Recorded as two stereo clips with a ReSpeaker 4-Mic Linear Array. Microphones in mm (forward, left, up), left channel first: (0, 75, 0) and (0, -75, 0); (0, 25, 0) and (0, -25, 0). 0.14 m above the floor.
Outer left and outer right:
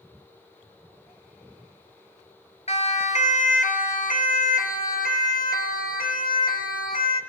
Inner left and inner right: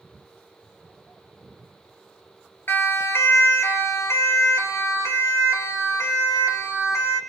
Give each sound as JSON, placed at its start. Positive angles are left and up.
{"t": 2.7, "sound": "a siren", "side_deg": 45, "distance_m": 2.5}